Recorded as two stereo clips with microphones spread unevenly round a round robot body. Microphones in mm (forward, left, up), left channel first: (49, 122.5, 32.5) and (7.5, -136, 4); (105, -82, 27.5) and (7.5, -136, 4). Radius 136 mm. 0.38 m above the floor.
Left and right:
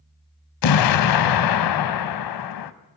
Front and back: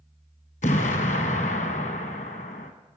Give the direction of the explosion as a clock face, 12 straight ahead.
9 o'clock.